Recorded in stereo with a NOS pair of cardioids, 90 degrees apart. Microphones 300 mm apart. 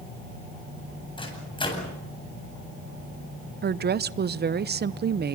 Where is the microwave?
15° left, 8.5 m.